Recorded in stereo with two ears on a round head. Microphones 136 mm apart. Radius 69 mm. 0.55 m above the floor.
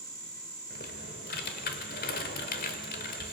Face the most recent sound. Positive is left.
turn(degrees=65)  # may be behind; listen again after turning